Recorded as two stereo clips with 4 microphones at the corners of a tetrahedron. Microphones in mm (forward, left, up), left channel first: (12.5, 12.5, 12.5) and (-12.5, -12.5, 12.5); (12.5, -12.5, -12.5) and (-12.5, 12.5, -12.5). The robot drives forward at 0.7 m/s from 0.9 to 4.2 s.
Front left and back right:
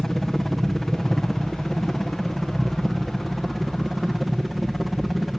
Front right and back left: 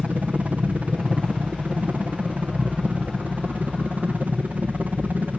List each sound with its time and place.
0.0 s a helicopter: 125° left; by 5.4 s 140° left